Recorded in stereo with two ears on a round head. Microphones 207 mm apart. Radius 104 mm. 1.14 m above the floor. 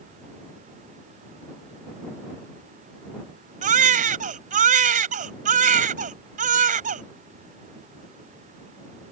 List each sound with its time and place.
3.6 s a baby crying: 35° right (ahead or behind)